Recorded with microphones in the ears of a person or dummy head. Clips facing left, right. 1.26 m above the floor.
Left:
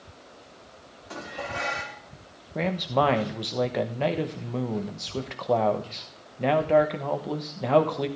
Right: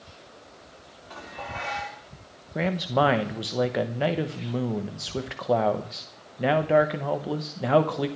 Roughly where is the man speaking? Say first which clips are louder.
Right 1 dB; centre.